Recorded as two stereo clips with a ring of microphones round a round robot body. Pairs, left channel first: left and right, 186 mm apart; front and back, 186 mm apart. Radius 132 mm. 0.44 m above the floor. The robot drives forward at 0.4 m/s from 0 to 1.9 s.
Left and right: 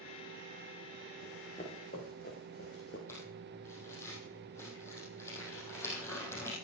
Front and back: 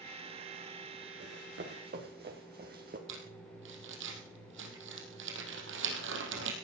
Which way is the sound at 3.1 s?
170° left.